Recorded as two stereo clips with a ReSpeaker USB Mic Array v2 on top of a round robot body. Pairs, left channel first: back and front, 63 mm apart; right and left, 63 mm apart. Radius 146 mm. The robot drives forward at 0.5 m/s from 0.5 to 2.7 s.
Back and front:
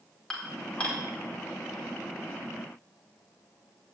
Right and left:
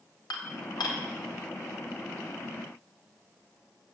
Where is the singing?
I don't hear singing.